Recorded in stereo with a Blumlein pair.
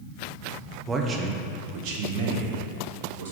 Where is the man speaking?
15° right, 0.8 m; by 3.3 s 60° right, 1.8 m.